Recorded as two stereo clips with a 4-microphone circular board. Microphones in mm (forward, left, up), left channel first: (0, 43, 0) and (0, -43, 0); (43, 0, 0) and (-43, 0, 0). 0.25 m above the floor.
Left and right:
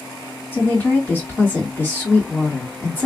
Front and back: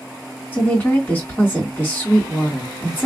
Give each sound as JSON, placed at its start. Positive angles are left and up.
{"t": 0.5, "sound": "a woman speaking", "azimuth_deg": 50, "distance_m": 1.8}